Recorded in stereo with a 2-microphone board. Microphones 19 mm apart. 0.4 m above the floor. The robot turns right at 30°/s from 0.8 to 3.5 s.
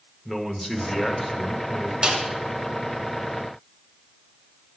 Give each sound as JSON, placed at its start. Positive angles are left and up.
{"t": 0.2, "sound": "a man speaking", "side_deg": 15, "distance_m": 0.8}
{"t": 2.0, "sound": "a snare drum", "side_deg": -60, "distance_m": 1.3}